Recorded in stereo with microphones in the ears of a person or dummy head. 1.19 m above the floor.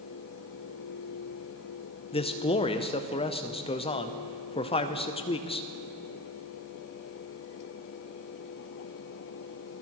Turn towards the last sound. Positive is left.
turn(degrees=25)  # may be behind; listen again after turning